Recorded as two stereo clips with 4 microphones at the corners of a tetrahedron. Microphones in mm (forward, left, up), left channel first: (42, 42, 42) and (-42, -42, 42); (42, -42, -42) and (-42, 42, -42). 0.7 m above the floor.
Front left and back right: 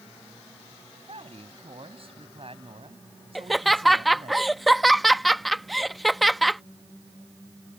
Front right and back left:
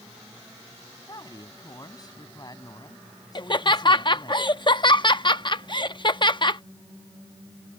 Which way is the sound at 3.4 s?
45° right.